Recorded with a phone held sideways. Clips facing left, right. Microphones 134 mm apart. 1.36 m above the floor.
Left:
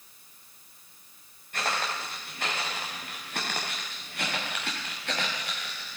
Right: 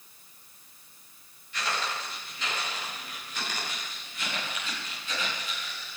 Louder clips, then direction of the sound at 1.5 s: Left 1 dB; 50° left (ahead or behind).